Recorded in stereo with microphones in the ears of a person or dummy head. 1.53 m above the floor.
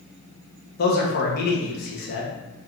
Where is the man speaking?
55° left (ahead or behind), 0.9 m.